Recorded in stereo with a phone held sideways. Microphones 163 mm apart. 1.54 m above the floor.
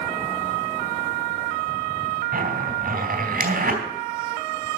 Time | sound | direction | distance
2.3 | a zipper | 60° right (ahead or behind) | 3 m